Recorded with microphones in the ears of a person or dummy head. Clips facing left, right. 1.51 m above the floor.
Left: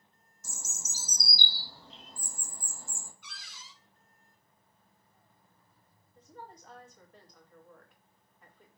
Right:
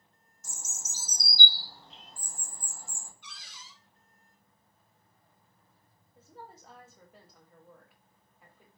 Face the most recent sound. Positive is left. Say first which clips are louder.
# even
turn(degrees=-5)  # may be behind; listen again after turning